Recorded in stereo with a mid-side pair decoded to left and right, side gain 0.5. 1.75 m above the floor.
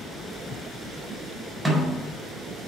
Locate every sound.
1.6 s a snare drum: 10° right, 4 m